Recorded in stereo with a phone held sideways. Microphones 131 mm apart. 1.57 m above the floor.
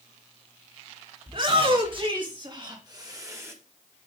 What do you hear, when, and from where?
1.3 s a shout: 45° right (ahead or behind), 4.5 m; by 3.5 s 20° right (ahead or behind), 2 m